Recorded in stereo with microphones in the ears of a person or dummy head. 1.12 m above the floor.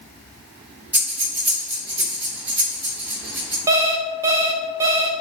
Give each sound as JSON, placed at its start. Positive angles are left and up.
{"t": 0.9, "sound": "breathing", "side_deg": -10, "distance_m": 1.4}
{"t": 3.7, "sound": "an alarm clock", "side_deg": -20, "distance_m": 0.6}